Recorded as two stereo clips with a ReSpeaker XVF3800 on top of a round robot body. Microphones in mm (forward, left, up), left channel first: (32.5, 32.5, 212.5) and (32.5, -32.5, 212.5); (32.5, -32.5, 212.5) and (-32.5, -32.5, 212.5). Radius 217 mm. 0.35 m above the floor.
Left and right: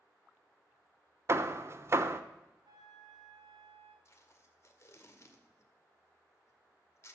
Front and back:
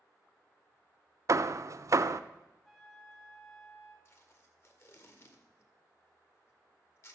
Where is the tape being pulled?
45° left, 2.0 m.